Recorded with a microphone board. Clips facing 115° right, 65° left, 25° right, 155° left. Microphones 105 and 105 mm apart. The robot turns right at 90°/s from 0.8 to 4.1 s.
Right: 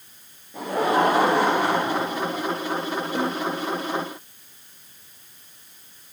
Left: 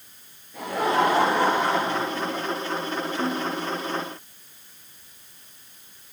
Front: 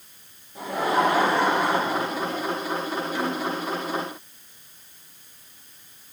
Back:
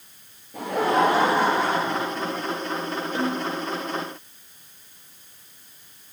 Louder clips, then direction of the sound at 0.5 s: Right 2 dB, back 2 dB; 175° left.